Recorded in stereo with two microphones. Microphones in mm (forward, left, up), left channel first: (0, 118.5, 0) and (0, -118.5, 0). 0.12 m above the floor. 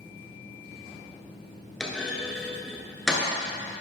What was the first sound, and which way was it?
A clunk, centre (ahead or behind).